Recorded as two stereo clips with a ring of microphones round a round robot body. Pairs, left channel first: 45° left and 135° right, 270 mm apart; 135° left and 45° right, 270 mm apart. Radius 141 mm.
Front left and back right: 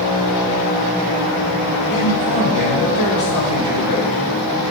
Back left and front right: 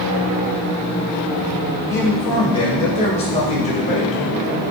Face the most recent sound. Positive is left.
turn(degrees=70)